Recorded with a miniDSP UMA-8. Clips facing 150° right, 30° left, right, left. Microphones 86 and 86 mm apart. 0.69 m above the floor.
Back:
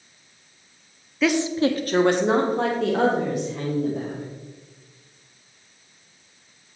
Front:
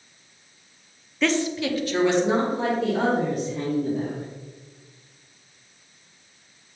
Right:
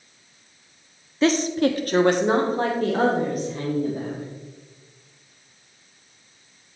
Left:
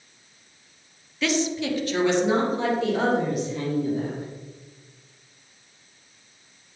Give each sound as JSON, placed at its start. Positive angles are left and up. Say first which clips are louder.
{"t": 1.2, "sound": "a woman speaking", "louder": "back 3 dB, right 5 dB", "azimuth_deg": -65, "distance_m": 0.7}